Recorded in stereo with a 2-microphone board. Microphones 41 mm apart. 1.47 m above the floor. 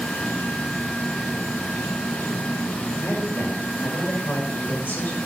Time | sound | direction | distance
0.0 | an insect | 60° left (ahead or behind) | 5.5 m
3.0 | a man speaking | 55° left (ahead or behind) | 6 m